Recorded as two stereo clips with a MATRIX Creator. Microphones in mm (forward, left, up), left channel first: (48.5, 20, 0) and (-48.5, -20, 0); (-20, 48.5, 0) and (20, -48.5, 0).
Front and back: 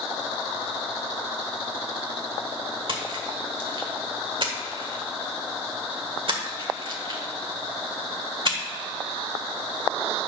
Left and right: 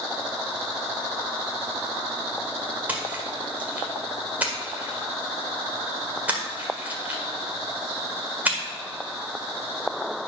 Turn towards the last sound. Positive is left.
turn(degrees=-140)